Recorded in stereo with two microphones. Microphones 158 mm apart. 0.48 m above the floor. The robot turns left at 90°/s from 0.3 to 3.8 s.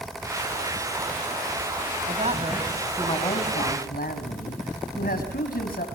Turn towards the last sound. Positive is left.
turn(degrees=90)